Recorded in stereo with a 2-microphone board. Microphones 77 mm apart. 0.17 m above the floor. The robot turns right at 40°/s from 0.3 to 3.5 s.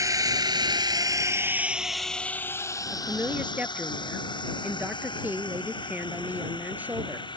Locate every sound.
0.0 s a drone: 45° right (ahead or behind); by 7.4 s 85° left
2.9 s a woman speaking: 40° right (ahead or behind); by 7.3 s 20° right (ahead or behind)